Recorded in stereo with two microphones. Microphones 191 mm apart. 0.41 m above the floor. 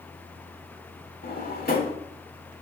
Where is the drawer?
55° left (ahead or behind), 0.6 m.